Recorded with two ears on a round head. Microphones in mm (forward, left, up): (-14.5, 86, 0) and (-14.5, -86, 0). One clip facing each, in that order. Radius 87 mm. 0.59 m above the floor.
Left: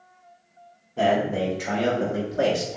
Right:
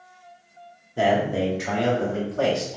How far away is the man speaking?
About 1.4 m.